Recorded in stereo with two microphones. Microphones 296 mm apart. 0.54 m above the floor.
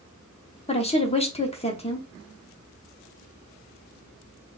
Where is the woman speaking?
20° left (ahead or behind), 0.8 m.